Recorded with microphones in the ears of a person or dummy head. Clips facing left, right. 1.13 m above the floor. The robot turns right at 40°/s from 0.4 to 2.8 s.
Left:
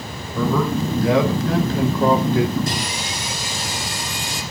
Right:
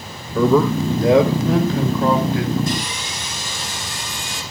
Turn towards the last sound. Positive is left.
turn(degrees=55)  # may be behind; listen again after turning